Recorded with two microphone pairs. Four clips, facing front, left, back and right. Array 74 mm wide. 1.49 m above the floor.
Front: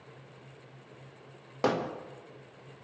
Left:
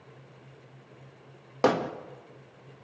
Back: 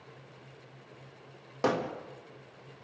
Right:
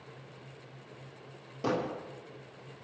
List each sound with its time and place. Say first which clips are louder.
1.6 s hammering: left 7 dB, even; 75° left, 1.6 m